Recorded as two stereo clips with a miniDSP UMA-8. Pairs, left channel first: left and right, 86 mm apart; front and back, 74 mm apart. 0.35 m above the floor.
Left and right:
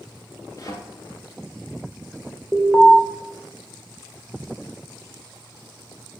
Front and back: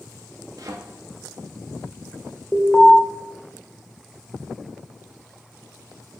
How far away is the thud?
About 1.5 m.